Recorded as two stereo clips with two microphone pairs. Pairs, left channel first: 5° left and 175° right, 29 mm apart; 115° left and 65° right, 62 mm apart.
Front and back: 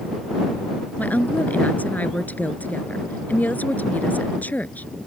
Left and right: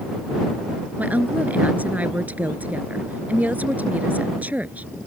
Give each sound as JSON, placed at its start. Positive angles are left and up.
{"t": 1.0, "sound": "a woman speaking", "azimuth_deg": 0}